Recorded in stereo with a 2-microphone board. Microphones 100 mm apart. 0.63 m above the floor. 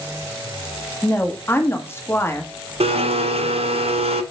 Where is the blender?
85° right, 0.7 m.